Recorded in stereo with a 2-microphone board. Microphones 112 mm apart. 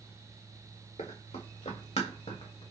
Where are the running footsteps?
85° left, 2 m; by 2.6 s 55° left (ahead or behind), 1.5 m.